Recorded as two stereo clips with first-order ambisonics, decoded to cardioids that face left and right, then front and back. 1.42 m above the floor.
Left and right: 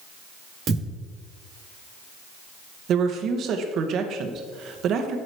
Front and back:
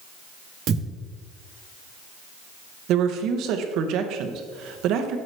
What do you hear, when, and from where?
0.7 s a thud: 145° right, 1.6 m
2.9 s a woman speaking: 140° right, 0.9 m